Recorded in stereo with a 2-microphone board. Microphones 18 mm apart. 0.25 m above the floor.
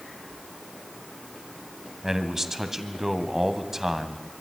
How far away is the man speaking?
About 2 m.